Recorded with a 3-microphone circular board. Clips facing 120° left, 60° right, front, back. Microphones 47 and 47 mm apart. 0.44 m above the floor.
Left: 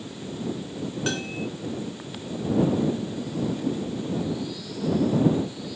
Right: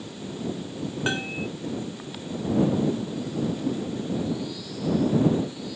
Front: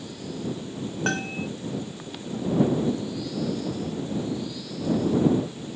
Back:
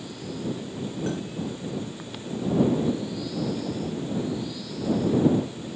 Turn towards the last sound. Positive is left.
turn(degrees=10)